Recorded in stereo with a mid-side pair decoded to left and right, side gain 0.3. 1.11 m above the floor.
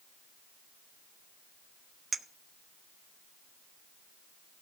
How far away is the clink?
About 1.0 m.